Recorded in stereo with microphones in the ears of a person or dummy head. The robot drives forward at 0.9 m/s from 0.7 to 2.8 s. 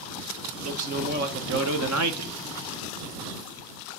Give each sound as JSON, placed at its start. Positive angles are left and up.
{"t": 0.6, "sound": "a man speaking", "side_deg": -35, "distance_m": 1.6}